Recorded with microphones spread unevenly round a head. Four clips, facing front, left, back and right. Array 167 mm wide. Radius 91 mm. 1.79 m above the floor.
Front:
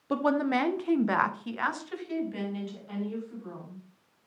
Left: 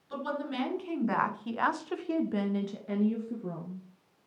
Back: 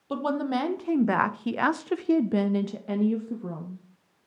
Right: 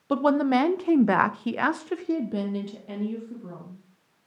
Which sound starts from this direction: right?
A woman speaking, at 0.1 s.